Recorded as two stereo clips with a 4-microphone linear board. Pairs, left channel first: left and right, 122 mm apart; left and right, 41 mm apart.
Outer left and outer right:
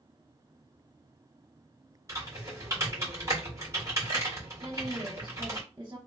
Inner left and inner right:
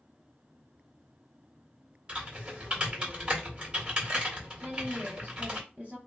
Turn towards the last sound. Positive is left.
turn(degrees=-40)  # may be behind; listen again after turning